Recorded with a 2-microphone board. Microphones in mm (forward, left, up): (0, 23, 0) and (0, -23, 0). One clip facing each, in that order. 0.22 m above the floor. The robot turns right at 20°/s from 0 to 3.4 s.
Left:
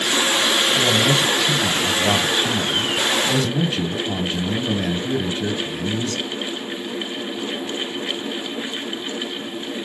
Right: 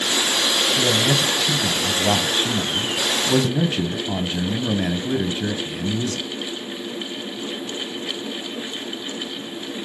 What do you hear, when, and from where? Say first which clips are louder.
0.8 s a man speaking: left 2 dB; 10° left (ahead or behind), 1.0 m; by 6.2 s 10° right (ahead or behind), 1.0 m